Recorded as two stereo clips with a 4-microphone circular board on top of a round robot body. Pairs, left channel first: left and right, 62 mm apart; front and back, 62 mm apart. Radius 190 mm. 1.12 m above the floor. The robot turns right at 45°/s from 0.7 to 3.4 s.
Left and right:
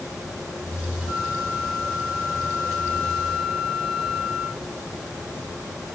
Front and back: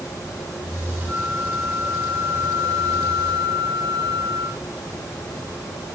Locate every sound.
1.1 s a flute: 55° left, 3 m; by 4.6 s 160° left, 3 m